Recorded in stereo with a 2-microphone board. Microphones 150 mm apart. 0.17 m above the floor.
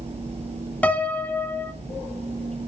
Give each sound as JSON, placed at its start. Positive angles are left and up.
{"t": 0.8, "sound": "a piano", "side_deg": 10, "distance_m": 1.1}